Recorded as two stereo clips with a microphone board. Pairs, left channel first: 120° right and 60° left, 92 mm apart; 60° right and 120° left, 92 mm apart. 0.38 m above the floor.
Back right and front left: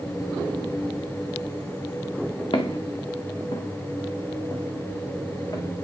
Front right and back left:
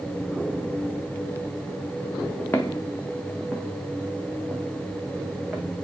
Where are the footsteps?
125° right, 1.8 m; by 5.7 s 160° right, 4 m.